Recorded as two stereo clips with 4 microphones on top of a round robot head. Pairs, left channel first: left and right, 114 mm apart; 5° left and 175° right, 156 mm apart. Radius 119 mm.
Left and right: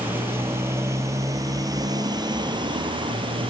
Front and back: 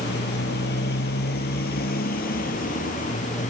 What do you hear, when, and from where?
0.0 s a motorcycle: 20° right; by 3.5 s 50° right